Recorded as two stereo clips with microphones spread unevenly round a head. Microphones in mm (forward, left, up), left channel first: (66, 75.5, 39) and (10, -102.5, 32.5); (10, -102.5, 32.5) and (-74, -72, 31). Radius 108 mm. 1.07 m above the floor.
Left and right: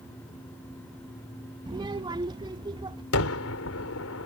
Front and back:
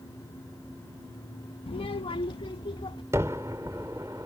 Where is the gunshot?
85° left.